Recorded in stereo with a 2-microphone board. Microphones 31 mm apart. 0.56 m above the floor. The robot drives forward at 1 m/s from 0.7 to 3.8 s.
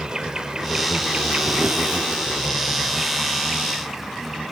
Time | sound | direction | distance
0.0 | an insect | 25° right (ahead or behind) | 1.0 m